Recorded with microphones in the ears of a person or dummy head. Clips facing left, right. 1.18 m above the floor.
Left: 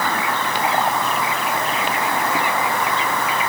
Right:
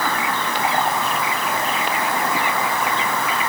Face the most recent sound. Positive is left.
No sound to turn to.